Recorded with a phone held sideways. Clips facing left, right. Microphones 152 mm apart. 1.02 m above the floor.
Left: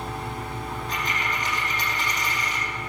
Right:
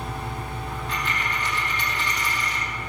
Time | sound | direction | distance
0.7 | a dropped coin | 40° left (ahead or behind) | 4.5 m